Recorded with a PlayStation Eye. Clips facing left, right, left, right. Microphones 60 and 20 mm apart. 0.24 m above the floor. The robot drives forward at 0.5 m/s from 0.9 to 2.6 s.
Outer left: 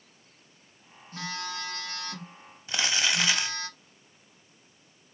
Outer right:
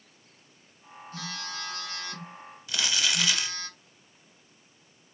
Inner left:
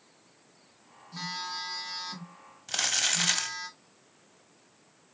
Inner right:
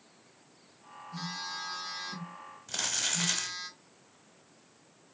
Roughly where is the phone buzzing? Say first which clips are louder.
Outer left 3 dB, inner left 3 dB; left.